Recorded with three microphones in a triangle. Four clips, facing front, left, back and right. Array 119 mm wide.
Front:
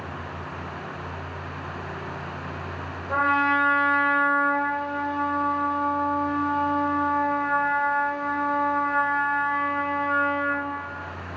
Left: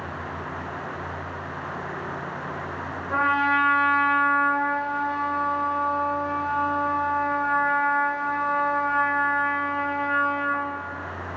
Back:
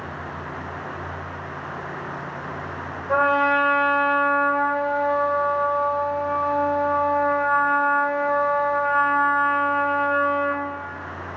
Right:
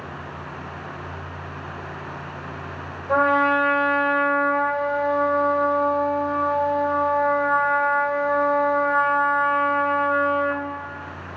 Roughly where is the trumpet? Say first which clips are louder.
Right 4 dB, back 3 dB; behind right.